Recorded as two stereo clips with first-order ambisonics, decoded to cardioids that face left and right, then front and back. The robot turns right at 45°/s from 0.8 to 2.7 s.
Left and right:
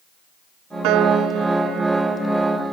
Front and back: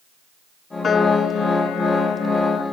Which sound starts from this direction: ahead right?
A piano, at 0.8 s.